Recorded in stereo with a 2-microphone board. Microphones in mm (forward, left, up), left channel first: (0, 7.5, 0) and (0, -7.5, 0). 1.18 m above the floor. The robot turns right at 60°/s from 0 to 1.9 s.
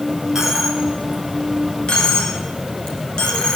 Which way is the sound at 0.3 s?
25° right (ahead or behind).